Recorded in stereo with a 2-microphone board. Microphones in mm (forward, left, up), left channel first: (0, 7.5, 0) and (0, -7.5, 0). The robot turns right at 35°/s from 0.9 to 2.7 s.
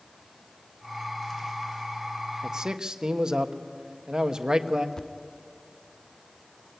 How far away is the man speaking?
About 1.2 m.